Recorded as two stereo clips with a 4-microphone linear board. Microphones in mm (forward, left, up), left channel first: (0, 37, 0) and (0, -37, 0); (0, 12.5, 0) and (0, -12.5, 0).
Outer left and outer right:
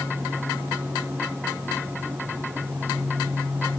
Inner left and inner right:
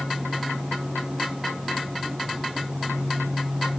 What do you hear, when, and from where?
Only background noise.